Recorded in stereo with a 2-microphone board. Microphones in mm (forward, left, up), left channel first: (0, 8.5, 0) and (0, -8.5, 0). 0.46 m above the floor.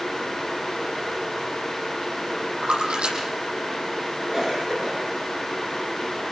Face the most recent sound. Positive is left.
turn(degrees=-25)  # may be behind; listen again after turning